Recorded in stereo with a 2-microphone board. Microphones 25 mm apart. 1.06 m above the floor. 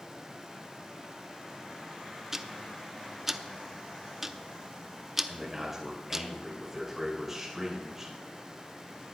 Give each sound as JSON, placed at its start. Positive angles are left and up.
{"t": 2.3, "sound": "ticking", "side_deg": -15, "distance_m": 0.6}
{"t": 5.3, "sound": "a man speaking", "side_deg": -15, "distance_m": 5.0}